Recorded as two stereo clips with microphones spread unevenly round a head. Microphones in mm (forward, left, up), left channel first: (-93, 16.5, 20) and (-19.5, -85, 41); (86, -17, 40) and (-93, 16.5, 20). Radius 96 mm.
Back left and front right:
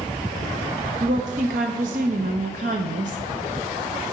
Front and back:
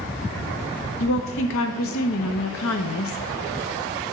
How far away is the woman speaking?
About 0.8 m.